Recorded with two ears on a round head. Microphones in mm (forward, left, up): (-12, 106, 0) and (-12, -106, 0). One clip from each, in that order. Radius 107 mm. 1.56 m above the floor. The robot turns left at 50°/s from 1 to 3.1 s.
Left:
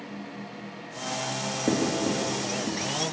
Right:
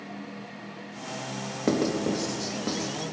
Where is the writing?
70° right (ahead or behind), 1.4 m; by 2.9 s 40° right (ahead or behind), 1.4 m.